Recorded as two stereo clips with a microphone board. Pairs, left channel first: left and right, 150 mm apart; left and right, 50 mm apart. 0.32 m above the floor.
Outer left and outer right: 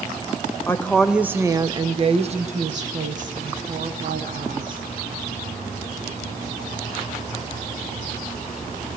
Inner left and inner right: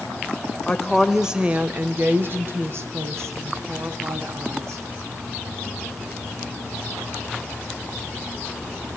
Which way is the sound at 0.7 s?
15° left (ahead or behind).